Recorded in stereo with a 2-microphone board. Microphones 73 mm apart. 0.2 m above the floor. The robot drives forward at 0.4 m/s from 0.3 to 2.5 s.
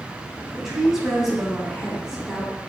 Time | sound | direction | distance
0.6 | a woman speaking | 5° right (ahead or behind) | 1.1 m